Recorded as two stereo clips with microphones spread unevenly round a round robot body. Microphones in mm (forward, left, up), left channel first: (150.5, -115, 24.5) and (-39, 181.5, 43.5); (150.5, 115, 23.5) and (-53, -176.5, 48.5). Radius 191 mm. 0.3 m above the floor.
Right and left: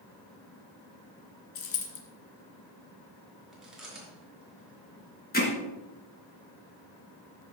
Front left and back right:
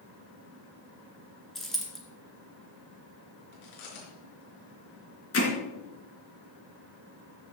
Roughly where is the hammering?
Ahead.